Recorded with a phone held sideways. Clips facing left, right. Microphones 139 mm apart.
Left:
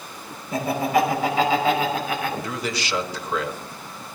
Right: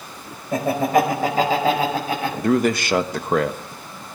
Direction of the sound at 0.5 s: 50° right (ahead or behind).